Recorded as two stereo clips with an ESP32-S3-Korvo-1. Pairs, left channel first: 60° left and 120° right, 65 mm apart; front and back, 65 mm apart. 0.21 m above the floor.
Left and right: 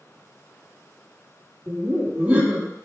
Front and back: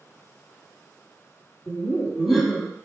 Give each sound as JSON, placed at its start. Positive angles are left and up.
{"t": 1.7, "sound": "laughter", "azimuth_deg": -95, "distance_m": 1.0}